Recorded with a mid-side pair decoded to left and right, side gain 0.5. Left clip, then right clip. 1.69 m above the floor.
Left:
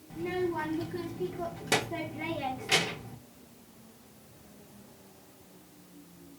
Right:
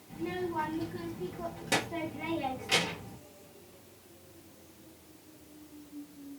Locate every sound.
0.1 s a child speaking: 25° left, 1.6 m